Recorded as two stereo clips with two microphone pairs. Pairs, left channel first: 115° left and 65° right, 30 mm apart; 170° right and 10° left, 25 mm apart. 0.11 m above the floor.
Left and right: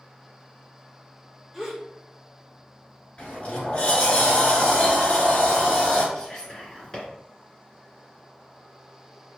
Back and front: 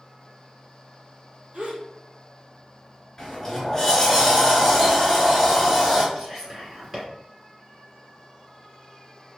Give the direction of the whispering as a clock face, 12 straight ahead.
9 o'clock.